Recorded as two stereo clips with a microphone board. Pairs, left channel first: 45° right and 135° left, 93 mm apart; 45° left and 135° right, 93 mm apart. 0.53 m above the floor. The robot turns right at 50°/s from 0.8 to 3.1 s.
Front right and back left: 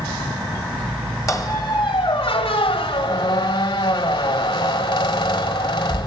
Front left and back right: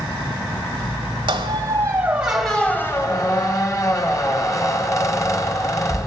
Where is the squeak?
105° right, 1.3 m; by 6.1 s 10° right, 1.3 m.